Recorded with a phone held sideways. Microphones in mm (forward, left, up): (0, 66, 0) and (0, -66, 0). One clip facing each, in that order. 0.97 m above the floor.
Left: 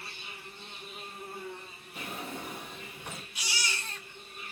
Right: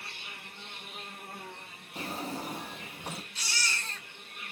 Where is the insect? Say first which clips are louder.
Left 1 dB; 60° right (ahead or behind), 1.1 m.